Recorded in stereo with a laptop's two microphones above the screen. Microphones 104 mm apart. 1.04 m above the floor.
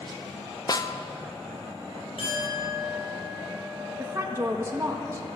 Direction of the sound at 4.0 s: 25° right (ahead or behind).